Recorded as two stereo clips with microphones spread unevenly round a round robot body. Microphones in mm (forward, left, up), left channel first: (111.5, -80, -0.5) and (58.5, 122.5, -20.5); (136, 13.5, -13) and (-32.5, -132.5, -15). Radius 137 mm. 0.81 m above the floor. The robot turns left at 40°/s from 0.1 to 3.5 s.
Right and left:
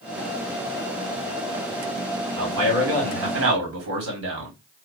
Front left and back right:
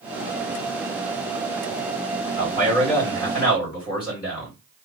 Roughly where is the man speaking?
Behind left.